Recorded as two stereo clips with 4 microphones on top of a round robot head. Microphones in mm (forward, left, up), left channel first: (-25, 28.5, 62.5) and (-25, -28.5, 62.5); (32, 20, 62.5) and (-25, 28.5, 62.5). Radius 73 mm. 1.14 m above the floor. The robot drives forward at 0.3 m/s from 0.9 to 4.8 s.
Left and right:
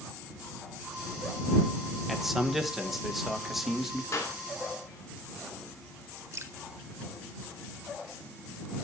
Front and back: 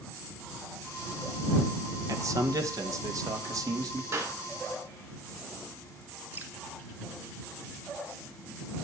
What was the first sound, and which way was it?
A man speaking, 175° right.